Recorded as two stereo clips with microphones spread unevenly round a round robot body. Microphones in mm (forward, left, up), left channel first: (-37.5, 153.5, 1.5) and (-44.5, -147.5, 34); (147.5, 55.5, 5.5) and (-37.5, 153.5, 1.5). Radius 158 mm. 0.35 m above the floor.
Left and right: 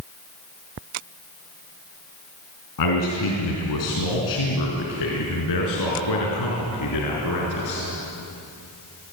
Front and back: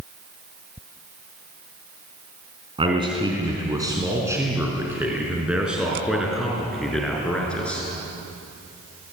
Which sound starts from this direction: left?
A man speaking, at 2.8 s.